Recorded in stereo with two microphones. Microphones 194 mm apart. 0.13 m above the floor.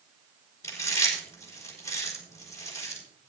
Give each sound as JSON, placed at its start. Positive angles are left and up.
{"t": 0.6, "sound": "chewing", "side_deg": 15, "distance_m": 5.0}